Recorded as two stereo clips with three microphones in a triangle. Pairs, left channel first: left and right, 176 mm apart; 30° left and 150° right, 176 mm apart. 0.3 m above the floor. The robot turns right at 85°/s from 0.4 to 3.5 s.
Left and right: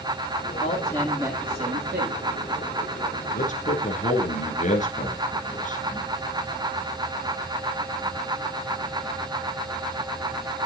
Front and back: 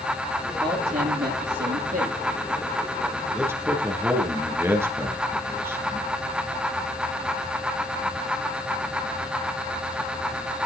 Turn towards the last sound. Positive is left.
turn(degrees=135)